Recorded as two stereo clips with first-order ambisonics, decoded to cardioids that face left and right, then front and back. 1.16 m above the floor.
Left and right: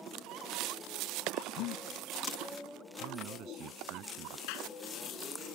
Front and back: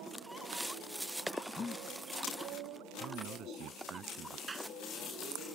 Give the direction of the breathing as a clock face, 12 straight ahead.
10 o'clock.